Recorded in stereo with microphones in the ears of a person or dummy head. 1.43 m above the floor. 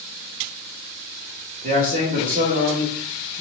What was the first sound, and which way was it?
A man speaking, 40° right (ahead or behind).